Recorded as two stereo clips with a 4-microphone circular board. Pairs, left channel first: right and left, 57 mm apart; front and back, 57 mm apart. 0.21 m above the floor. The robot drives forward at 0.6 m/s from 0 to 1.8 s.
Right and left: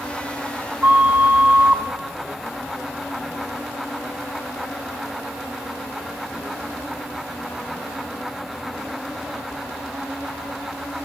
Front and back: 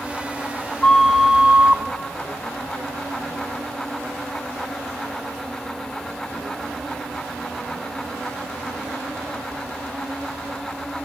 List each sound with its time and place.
0.8 s a flute: 60° left, 0.7 m; by 1.8 s 140° left, 0.8 m